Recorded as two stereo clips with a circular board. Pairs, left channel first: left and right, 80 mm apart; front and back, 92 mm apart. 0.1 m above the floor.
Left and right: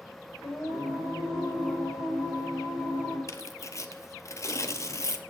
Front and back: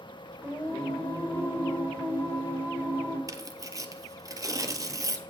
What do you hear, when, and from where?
0.4 s singing: 120° left, 3 m
3.3 s tearing paper: 130° left, 0.5 m